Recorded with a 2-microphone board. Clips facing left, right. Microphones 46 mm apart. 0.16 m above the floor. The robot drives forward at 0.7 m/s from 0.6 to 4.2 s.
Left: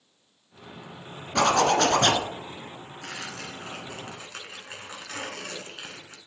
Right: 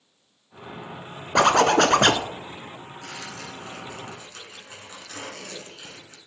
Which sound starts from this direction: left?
Tearing paper, at 3.0 s.